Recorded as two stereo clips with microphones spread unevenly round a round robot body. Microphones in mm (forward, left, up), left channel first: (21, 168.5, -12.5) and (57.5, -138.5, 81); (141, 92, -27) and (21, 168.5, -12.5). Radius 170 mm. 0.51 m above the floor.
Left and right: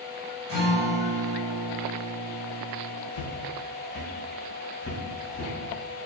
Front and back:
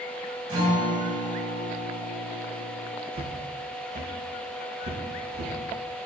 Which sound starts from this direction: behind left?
A guitar, at 0.5 s.